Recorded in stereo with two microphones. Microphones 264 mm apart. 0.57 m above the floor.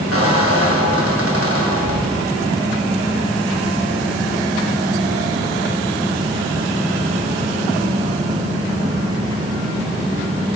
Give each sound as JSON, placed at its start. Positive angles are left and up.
{"t": 0.1, "sound": "a squeak", "side_deg": -55, "distance_m": 2.0}